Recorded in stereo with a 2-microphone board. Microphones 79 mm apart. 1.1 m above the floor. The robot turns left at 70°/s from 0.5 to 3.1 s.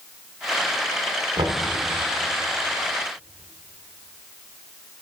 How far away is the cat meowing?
No cat meowing in this recording.